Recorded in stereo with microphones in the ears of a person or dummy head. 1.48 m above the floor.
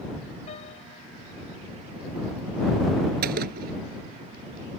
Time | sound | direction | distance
0.5 | a piano | 35° left (ahead or behind) | ?
3.2 | a gunshot | 55° right (ahead or behind) | ?